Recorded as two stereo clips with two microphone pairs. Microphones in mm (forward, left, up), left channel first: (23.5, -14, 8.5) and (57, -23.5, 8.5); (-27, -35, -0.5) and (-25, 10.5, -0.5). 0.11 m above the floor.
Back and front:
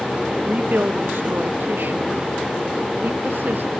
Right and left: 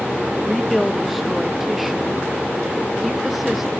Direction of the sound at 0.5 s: Straight ahead.